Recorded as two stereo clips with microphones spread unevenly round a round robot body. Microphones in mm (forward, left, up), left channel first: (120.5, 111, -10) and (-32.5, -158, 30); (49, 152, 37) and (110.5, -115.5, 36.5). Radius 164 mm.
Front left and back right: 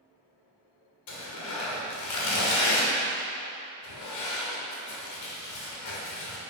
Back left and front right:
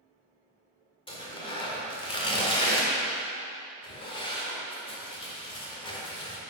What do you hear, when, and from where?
1.1 s tearing paper: 30° left, 1.9 m